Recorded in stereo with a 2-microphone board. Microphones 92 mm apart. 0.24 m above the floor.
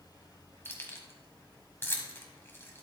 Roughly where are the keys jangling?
Left.